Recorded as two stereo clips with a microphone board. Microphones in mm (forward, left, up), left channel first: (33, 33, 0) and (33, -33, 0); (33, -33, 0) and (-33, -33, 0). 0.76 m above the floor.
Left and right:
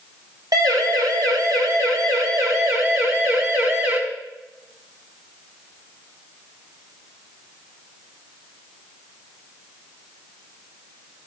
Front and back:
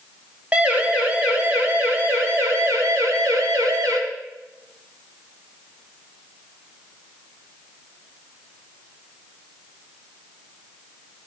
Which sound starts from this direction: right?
A siren, at 0.5 s.